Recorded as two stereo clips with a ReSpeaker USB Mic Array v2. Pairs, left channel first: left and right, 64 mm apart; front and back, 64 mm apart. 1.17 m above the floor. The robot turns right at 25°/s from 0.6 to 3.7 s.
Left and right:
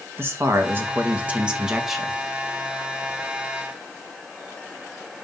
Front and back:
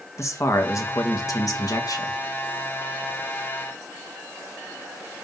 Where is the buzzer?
I don't hear a buzzer.